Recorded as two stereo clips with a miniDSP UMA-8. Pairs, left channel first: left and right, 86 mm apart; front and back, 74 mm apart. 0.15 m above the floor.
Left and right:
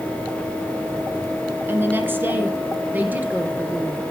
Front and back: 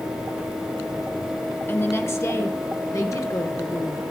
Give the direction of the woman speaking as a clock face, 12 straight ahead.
1 o'clock.